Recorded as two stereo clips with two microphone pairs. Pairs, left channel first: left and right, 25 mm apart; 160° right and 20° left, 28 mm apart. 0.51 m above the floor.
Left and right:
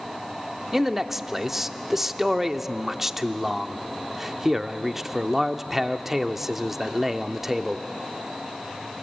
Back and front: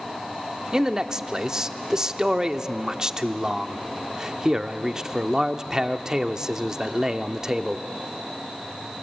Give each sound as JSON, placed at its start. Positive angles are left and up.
{"t": 0.7, "sound": "a man speaking", "azimuth_deg": -25, "distance_m": 0.8}